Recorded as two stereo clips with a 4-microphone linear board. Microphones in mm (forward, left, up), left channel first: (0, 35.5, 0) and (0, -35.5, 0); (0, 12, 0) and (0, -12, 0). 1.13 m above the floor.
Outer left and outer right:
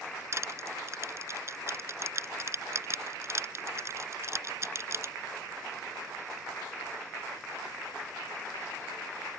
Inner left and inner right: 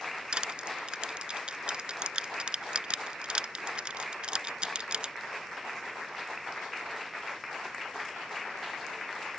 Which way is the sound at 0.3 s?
40° right (ahead or behind).